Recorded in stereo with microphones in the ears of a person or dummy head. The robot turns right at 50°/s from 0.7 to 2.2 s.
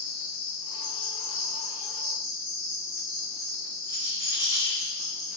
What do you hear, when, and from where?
0.0 s an insect: 70° left, 0.8 m; by 5.4 s 145° left, 0.8 m
3.8 s a rattle: 10° right (ahead or behind), 1.0 m